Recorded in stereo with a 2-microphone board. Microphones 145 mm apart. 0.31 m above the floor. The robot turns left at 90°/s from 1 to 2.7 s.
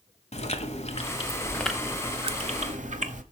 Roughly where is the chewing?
Ahead left.